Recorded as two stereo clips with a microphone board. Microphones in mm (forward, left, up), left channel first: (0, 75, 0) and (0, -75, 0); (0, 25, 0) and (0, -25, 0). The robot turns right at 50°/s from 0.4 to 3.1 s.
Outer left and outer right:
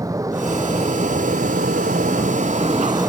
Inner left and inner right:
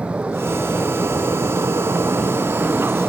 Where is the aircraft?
155° right; by 3.1 s 20° right.